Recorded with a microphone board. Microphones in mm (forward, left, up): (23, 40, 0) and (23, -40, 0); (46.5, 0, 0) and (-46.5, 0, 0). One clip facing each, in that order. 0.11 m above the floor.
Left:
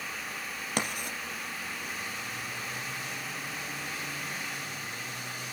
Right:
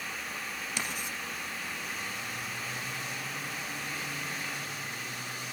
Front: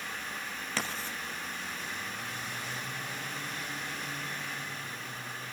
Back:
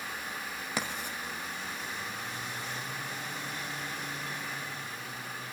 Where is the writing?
110° left, 3 m.